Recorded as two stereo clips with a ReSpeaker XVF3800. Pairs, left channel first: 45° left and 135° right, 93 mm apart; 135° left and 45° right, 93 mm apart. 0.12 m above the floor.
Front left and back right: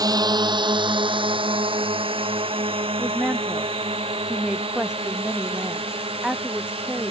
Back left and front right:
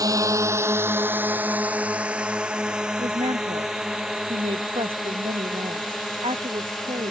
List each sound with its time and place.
0.0 s a drone: 90° right; by 7.1 s 135° right
3.0 s a woman speaking: 55° right